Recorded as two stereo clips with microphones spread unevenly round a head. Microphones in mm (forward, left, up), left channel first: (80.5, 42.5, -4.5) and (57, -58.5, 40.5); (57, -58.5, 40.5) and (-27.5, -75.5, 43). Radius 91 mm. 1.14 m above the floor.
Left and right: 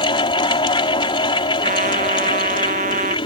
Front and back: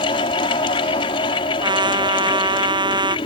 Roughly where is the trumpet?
Behind right.